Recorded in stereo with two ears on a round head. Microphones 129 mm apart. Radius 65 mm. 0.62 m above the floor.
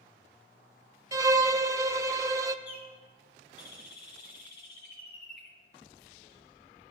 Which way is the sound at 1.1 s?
25° right (ahead or behind).